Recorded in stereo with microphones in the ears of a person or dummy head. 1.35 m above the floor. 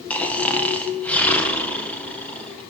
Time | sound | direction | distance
0.1 | snoring | 10° left (ahead or behind) | 0.9 m